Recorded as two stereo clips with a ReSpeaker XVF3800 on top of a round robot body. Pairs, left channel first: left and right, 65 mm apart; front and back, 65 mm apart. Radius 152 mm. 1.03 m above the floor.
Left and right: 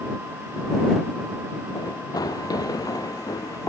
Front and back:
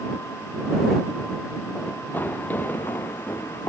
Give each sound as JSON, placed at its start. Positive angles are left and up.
{"t": 1.8, "sound": "running footsteps", "azimuth_deg": 65}